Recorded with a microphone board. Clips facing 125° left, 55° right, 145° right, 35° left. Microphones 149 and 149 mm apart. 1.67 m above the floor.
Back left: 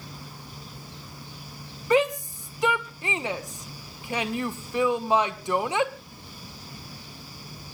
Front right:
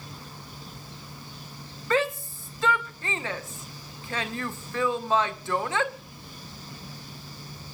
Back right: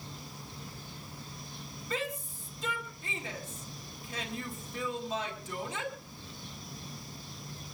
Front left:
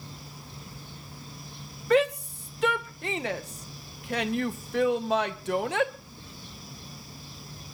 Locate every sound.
1.9 s a shout: 50° left, 1.7 m